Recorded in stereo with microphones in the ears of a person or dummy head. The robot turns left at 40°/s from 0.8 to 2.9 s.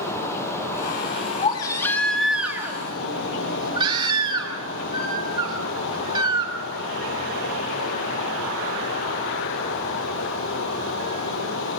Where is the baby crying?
35° left, 2.5 m; by 6.5 s 25° right, 2.5 m.